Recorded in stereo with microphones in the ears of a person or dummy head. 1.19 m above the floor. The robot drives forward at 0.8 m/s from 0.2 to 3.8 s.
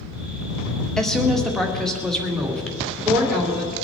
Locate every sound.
1.0 s a woman speaking: centre (ahead or behind), 1.3 m